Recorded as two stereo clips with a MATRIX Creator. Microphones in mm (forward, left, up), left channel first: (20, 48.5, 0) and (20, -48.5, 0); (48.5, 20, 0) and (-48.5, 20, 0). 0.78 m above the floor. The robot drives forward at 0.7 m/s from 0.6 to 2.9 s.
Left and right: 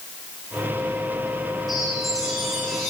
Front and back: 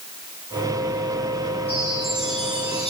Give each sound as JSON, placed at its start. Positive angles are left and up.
{"t": 1.7, "sound": "a chime", "azimuth_deg": 0, "distance_m": 8.0}